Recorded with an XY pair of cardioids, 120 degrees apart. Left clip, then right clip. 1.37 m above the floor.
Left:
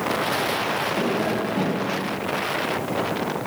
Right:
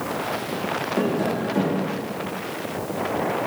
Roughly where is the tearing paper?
I don't hear tearing paper.